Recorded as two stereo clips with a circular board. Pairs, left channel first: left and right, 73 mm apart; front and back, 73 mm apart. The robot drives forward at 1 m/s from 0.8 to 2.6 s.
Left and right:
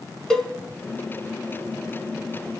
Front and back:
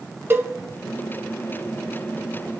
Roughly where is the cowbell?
Behind.